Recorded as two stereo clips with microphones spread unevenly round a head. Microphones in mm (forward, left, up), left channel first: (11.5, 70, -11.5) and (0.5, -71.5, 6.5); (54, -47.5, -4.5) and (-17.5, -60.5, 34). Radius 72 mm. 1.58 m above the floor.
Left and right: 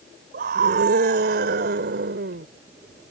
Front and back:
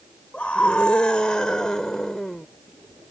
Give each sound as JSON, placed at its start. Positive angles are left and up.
{"t": 0.3, "sound": "a scream", "azimuth_deg": -70}